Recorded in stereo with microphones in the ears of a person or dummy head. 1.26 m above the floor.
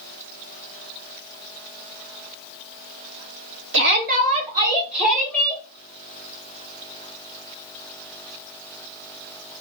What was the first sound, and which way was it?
A shout, 50° right (ahead or behind).